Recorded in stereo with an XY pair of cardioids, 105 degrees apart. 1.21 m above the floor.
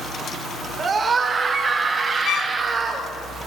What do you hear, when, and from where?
0.8 s a scream: 40° right, 4 m; by 3.1 s 35° right, 6 m
2.2 s a violin: 60° left, 0.8 m